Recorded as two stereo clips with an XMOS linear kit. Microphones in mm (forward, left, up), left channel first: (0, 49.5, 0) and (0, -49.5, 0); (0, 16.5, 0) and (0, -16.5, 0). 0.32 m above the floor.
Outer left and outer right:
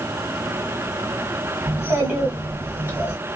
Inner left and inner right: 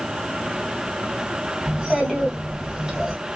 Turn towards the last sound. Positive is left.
turn(degrees=-25)  # may be behind; listen again after turning